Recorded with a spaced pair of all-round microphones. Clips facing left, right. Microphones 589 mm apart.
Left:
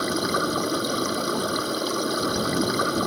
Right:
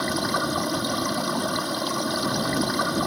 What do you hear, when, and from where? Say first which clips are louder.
0.0 s running water: left 2 dB; 20° right (ahead or behind)